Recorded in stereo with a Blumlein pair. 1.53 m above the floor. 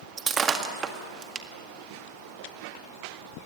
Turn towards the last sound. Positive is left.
turn(degrees=-20)